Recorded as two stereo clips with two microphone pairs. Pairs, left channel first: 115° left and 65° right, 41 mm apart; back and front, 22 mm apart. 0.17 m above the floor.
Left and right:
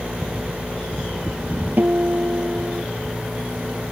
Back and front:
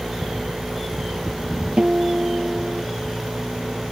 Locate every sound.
1.8 s a guitar: 30° right